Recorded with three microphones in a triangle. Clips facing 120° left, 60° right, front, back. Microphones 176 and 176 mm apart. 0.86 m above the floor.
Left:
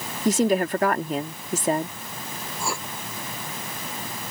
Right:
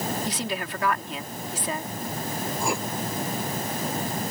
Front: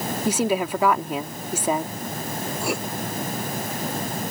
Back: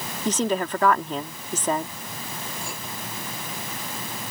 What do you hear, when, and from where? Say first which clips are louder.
0.2 s a woman speaking: left 10 dB, front 1 dB; 80° left
2.6 s writing: right 2 dB, front 11 dB; 10° left